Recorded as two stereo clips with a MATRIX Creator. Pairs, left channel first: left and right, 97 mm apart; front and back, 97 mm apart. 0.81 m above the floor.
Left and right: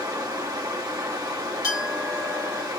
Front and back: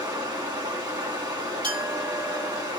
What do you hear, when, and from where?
0.0 s running water: 135° right, 1.2 m
1.6 s a clink: 145° left, 1.9 m